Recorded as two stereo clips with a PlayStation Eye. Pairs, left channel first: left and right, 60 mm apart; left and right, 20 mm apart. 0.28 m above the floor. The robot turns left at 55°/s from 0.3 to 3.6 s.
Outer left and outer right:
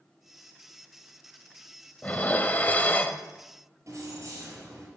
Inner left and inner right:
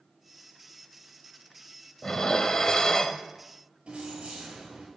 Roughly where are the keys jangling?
Right.